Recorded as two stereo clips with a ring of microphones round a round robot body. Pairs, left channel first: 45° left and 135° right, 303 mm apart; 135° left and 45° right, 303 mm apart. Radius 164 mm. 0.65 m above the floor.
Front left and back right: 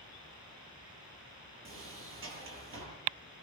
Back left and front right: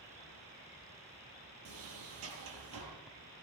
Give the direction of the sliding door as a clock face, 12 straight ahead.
3 o'clock.